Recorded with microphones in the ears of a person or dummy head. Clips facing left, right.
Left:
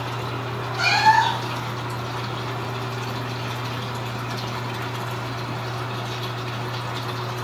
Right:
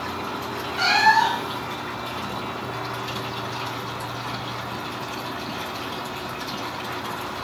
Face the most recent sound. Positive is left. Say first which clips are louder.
# left 1 dB
turn(degrees=-10)  # may be behind; listen again after turning